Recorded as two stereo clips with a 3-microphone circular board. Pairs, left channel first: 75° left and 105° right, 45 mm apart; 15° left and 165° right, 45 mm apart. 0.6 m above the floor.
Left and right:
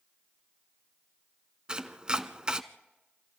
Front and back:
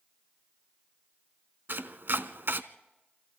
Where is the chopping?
170° right, 0.9 m.